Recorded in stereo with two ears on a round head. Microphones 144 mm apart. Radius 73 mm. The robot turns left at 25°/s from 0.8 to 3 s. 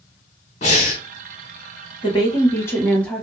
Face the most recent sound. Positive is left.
turn(degrees=5)  # may be behind; listen again after turning